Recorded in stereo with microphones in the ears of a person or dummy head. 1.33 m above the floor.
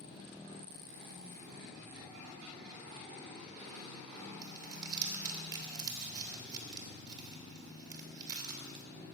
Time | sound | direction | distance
4.4 | crumpling | 25° right (ahead or behind) | 2.5 m